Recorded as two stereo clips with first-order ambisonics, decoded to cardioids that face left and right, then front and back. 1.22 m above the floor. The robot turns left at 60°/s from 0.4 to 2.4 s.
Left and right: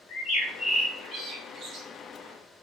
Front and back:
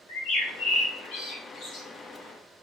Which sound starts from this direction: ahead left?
A bird, at 0.1 s.